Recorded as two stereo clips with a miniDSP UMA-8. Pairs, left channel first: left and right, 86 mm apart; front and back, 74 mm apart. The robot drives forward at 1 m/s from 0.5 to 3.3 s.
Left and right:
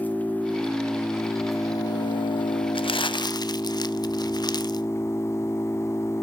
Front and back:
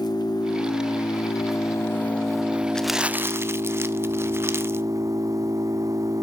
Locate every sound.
0.0 s an engine running: 20° left, 2.0 m; by 6.2 s 145° left, 1.2 m
2.8 s crumpling: 80° left, 0.6 m; by 4.9 s 125° left, 0.7 m